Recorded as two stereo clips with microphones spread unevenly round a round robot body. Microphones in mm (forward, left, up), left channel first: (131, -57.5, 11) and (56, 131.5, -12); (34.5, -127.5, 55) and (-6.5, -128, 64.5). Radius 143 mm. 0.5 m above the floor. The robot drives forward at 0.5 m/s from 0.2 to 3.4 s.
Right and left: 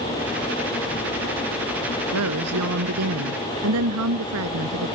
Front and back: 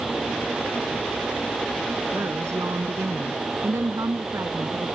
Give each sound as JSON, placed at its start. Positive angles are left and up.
{"t": 2.1, "sound": "a woman speaking", "azimuth_deg": 130}